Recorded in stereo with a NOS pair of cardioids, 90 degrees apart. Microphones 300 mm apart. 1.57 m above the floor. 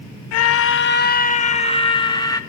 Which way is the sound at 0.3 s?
60° left.